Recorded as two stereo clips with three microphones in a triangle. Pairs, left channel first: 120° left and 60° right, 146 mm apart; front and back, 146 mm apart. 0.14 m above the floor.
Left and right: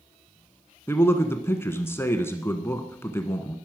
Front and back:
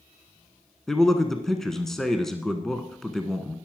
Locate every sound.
0.9 s a man speaking: 80° left, 1.0 m